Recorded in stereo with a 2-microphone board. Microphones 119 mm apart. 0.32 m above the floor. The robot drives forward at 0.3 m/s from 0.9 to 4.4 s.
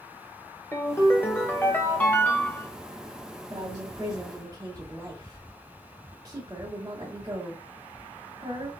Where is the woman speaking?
30° right (ahead or behind), 1.5 m.